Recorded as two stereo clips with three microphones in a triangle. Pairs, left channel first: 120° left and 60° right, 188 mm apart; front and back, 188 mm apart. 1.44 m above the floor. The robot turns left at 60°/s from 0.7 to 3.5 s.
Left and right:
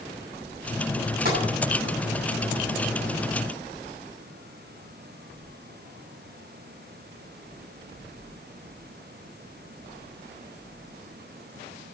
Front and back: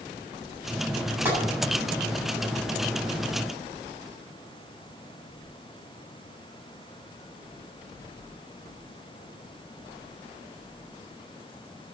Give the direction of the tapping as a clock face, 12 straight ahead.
3 o'clock.